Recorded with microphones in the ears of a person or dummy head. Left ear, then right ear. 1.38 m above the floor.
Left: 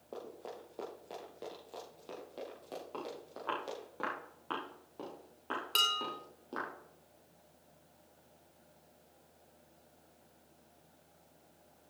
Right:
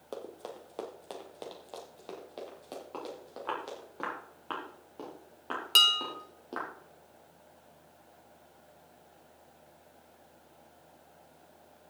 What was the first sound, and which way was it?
Running footsteps, 50° right (ahead or behind).